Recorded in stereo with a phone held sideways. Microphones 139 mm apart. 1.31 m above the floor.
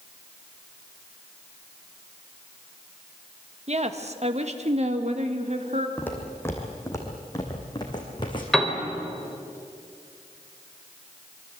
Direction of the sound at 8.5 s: Centre (ahead or behind).